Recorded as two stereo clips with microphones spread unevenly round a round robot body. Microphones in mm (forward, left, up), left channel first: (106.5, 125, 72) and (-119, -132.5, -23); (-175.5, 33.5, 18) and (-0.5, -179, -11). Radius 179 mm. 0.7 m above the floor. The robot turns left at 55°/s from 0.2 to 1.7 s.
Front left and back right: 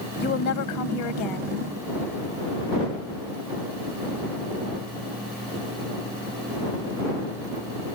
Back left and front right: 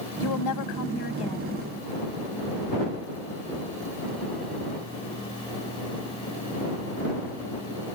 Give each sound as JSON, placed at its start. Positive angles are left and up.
{"t": 0.2, "sound": "a woman speaking", "azimuth_deg": 115}